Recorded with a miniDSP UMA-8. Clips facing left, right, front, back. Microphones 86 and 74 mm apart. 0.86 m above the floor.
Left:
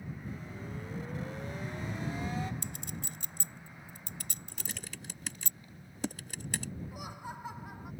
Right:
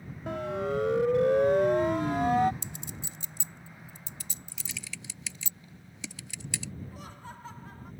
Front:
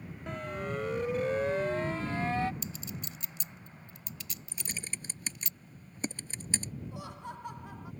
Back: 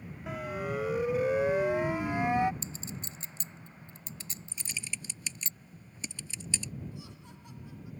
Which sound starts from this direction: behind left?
A clink, at 2.6 s.